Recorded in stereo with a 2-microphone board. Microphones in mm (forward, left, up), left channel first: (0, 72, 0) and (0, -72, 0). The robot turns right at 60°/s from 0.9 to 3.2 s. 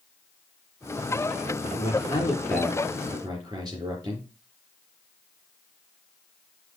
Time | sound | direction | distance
1.7 | a man speaking | 120° left | 5 m